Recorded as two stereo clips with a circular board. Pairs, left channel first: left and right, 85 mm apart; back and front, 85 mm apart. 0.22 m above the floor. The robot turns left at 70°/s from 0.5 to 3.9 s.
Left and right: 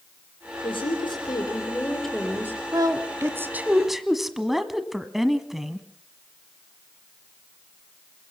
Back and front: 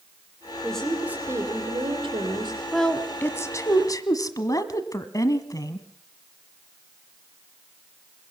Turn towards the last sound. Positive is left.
turn(degrees=-175)